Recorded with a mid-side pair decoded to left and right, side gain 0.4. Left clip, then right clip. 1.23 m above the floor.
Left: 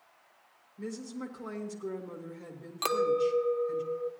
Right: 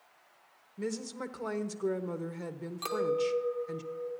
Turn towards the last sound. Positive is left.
turn(degrees=65)